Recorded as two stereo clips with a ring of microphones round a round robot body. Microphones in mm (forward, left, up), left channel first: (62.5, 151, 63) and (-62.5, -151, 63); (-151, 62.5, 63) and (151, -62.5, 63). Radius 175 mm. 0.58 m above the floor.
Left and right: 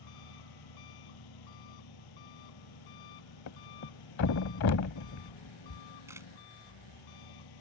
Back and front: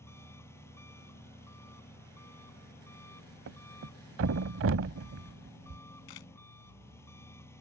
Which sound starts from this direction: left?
An engine running, at 0.0 s.